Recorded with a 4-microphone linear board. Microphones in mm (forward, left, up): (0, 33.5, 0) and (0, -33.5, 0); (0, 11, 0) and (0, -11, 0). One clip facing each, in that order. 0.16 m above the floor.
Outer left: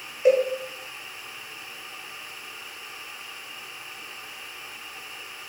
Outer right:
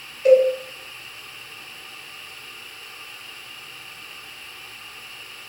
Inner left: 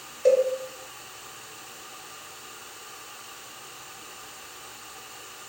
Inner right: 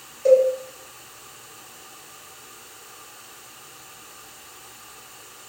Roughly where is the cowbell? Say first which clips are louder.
Outer right 5 dB, inner right 4 dB; centre.